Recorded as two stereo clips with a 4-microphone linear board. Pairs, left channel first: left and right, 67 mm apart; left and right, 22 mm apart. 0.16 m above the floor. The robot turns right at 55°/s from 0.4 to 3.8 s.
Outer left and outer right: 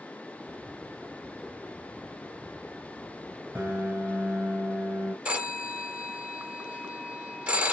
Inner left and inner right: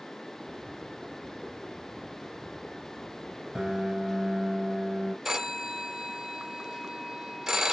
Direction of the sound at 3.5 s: 30° right (ahead or behind).